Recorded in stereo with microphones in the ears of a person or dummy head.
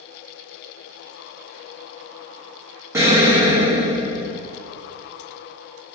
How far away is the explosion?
About 1.3 m.